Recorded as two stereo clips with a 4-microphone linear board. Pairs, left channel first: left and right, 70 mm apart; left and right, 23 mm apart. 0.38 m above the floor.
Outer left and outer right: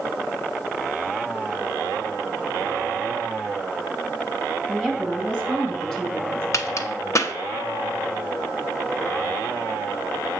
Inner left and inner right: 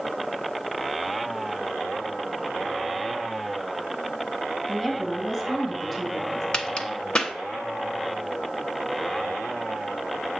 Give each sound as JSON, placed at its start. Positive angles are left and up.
{"t": 4.7, "sound": "a woman speaking", "side_deg": 15, "distance_m": 2.0}
{"t": 6.5, "sound": "a crack", "side_deg": 45, "distance_m": 0.8}